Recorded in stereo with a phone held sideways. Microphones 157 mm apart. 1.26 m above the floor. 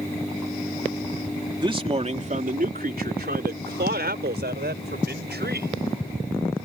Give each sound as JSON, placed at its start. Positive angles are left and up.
{"t": 1.6, "sound": "a man speaking", "side_deg": -30}